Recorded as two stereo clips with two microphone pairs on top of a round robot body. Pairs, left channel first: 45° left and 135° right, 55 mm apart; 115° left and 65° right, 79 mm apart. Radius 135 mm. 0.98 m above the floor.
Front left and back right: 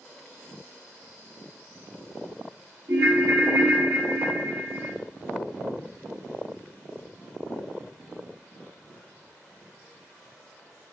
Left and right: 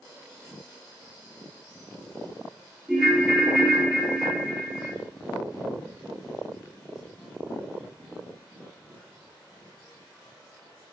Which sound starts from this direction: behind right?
A ringtone, at 2.9 s.